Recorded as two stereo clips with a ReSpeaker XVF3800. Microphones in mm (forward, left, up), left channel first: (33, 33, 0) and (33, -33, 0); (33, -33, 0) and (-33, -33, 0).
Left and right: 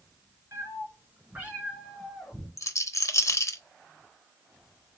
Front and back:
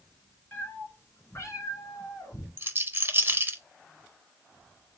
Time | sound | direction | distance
0.5 | a cat meowing | 60° right | 1.7 m
2.6 | a rattle | 125° left | 0.5 m